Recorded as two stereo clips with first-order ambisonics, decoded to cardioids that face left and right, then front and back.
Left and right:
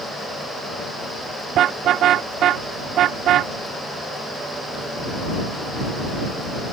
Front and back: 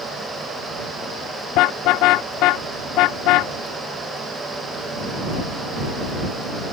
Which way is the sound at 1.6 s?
35° right.